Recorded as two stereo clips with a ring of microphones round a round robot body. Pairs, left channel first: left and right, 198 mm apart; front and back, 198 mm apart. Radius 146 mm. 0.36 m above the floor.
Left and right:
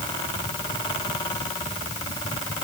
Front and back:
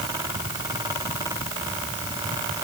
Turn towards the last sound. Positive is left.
No sound to turn to.